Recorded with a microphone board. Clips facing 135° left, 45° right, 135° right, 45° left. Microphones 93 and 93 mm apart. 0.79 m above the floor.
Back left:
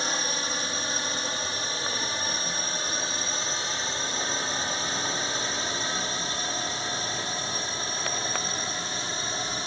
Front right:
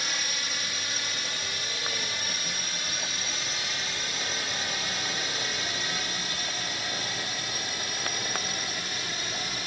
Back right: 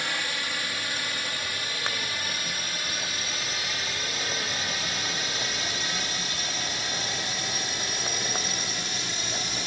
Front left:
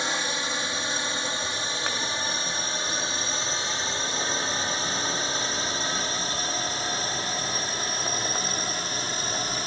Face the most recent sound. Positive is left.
turn(degrees=85)